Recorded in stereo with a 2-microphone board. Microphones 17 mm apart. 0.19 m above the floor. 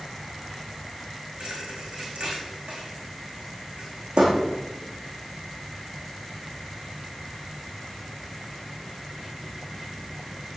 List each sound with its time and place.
1.4 s a thud: 85° right, 6 m